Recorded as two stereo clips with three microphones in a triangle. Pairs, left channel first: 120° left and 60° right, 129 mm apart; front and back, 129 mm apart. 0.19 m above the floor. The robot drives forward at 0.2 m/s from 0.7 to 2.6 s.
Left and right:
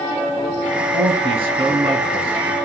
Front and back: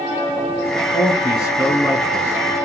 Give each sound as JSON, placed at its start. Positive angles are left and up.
{"t": 0.9, "sound": "a man speaking", "azimuth_deg": -55, "distance_m": 2.5}